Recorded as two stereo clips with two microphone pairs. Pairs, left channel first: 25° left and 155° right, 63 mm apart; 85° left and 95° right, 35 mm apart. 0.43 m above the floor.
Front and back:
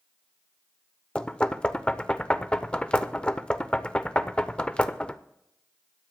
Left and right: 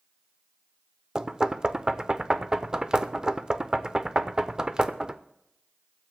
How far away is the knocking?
About 0.6 m.